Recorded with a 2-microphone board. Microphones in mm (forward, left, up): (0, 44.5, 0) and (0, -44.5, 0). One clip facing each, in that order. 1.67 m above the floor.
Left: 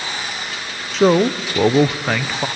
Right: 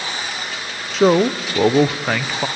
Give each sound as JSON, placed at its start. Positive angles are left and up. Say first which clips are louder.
{"t": 0.9, "sound": "a man speaking", "louder": "even", "side_deg": 0, "distance_m": 0.6}